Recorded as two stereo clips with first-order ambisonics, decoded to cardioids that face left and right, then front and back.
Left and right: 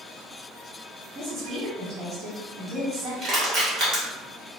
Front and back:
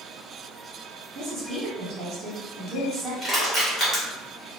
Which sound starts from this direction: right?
Crushing, at 3.2 s.